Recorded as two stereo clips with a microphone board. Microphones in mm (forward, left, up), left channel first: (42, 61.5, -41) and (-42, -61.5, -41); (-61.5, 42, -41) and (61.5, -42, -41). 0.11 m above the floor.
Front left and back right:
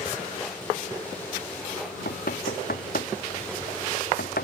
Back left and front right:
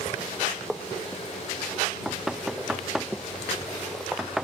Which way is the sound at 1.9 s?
55° left.